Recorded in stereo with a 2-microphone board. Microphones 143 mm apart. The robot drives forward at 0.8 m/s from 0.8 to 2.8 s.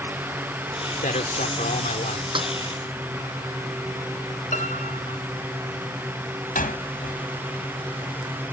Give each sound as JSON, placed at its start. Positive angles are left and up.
{"t": 1.0, "sound": "a man speaking", "side_deg": 70}
{"t": 2.4, "sound": "a snare drum", "side_deg": -35}
{"t": 4.5, "sound": "a piano", "side_deg": 70}
{"t": 6.5, "sound": "a door slam", "side_deg": 80}